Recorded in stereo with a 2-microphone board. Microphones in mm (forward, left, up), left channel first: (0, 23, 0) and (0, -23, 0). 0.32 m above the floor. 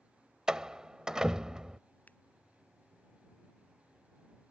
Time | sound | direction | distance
0.5 | a door slam | 15° right (ahead or behind) | ?
2.1 | scissors | 35° left (ahead or behind) | ?